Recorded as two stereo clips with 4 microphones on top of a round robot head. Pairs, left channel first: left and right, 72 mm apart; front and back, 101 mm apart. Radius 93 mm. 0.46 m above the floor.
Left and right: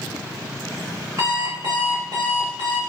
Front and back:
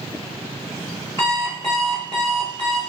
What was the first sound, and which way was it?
An alarm clock, 55° right.